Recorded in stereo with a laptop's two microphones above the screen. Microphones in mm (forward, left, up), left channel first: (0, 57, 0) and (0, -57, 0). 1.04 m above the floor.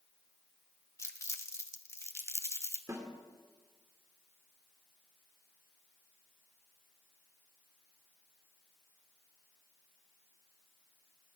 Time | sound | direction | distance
1.0 | crumpling | 25° left (ahead or behind) | 1.3 m
2.9 | a snare drum | 30° right (ahead or behind) | 1.6 m